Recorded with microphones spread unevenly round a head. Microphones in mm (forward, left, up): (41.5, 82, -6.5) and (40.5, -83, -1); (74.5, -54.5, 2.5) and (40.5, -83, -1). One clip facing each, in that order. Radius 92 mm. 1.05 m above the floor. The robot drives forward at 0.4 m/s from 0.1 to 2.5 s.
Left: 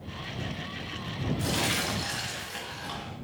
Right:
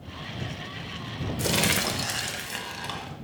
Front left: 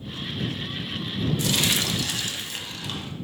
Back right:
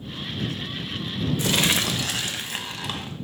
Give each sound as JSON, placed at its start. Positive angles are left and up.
{"t": 1.4, "sound": "crumpling", "azimuth_deg": -95, "distance_m": 0.9}